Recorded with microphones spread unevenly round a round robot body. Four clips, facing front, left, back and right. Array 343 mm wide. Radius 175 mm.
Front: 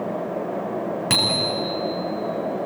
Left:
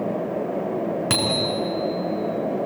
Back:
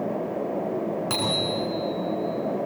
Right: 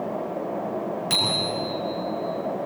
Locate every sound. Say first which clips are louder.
1.1 s a bicycle bell: left 4 dB, front 2 dB; 65° left, 4 m